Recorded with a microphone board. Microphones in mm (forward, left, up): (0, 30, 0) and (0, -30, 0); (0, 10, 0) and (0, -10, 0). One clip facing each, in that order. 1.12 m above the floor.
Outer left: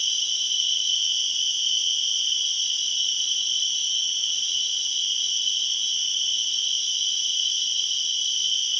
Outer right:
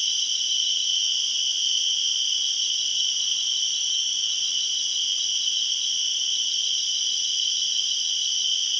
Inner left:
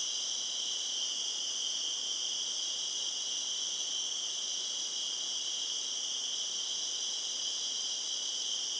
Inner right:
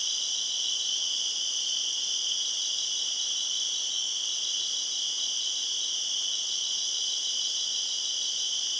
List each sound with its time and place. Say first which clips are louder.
0.0 s an insect: even, inner right 6 dB; 70° right (ahead or behind), 1.5 m